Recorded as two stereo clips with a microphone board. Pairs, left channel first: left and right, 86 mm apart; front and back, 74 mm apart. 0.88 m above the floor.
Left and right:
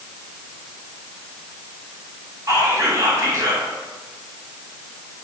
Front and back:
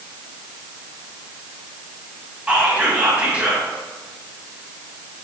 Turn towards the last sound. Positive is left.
turn(degrees=-115)